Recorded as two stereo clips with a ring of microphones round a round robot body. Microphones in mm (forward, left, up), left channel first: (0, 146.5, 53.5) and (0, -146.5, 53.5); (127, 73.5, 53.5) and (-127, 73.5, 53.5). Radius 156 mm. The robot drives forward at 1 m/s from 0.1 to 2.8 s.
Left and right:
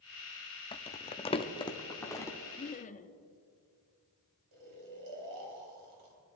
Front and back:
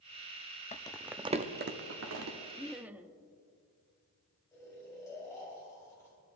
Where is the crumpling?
35° left, 0.8 m; by 2.4 s 170° left, 1.5 m.